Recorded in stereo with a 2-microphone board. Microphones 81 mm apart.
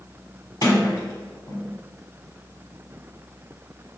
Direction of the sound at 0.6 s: 55° left (ahead or behind).